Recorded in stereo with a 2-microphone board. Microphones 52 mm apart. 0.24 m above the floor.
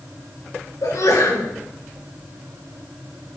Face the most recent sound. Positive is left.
turn(degrees=70)  # may be behind; listen again after turning